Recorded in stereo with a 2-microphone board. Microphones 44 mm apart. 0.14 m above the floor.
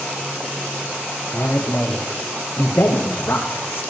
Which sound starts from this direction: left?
A man speaking, at 1.3 s.